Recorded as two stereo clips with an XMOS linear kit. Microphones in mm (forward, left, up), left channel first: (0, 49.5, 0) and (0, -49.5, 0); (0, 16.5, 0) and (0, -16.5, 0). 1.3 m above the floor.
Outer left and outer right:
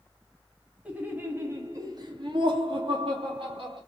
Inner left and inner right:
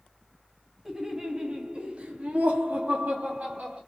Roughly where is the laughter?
Centre.